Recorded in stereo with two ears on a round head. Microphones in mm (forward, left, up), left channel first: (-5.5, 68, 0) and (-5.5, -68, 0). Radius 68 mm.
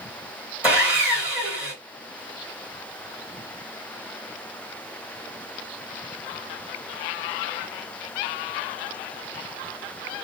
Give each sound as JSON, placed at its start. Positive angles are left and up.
{"t": 0.6, "sound": "sawing", "side_deg": -10, "distance_m": 1.8}